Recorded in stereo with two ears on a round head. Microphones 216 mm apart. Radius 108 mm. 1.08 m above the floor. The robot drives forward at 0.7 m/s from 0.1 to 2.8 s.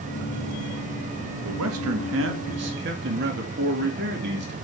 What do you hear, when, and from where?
1.4 s a man speaking: 70° right (ahead or behind), 1.5 m; by 4.5 s 50° right (ahead or behind), 1.9 m